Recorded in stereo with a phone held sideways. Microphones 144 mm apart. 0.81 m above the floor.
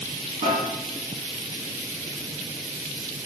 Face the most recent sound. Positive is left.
turn(degrees=-45)  # may be behind; listen again after turning